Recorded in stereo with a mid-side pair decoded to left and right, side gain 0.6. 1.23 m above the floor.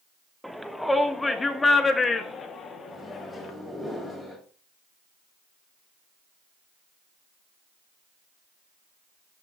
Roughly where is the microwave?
Ahead.